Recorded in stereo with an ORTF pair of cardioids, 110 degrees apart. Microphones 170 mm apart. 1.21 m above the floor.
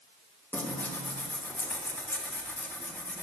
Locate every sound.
0.5 s tearing paper: 10° left, 1.5 m